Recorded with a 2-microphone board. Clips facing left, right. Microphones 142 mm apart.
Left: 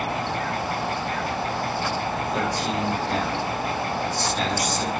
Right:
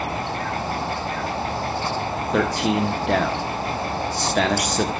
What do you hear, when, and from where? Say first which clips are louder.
2.3 s a man speaking: right 8 dB; 85° right, 1.5 m